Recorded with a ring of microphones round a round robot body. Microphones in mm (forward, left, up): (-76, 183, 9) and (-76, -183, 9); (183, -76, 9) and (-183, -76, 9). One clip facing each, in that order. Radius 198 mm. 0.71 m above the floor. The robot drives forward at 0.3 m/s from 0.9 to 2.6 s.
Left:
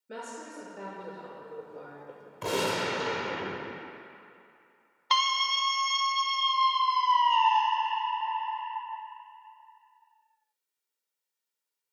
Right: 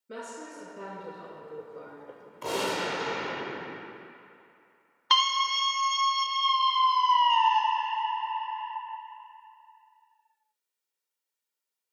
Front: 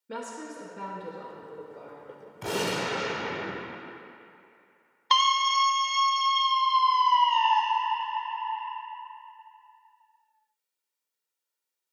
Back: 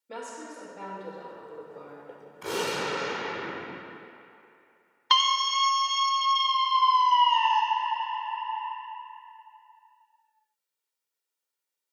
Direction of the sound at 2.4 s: 50° left.